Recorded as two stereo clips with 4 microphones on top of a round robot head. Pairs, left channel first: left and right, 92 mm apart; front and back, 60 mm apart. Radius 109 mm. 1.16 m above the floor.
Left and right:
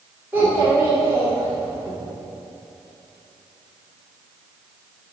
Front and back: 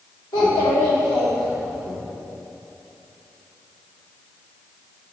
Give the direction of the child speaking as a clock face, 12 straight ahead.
12 o'clock.